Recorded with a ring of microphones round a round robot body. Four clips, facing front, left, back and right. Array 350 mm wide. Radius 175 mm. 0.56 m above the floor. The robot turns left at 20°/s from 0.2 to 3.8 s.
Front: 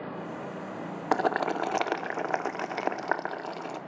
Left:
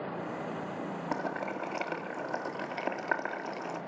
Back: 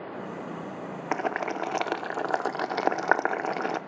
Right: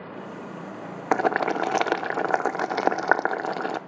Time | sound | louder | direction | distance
1.1 | boiling | right 14 dB, front 3 dB | 75° right | 0.5 m